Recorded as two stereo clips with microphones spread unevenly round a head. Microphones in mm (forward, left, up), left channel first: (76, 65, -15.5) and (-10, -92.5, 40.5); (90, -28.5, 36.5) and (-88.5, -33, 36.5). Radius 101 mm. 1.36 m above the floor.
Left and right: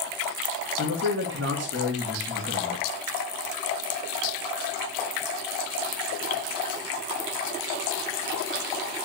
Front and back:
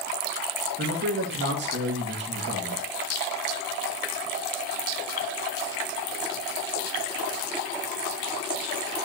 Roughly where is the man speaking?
Behind right.